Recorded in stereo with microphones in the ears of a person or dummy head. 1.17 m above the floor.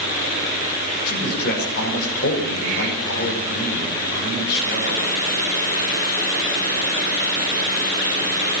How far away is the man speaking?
About 5 m.